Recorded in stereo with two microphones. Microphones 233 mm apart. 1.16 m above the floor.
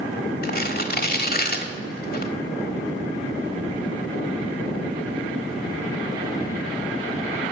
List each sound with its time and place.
0.4 s tearing paper: 40° left (ahead or behind), 1.2 m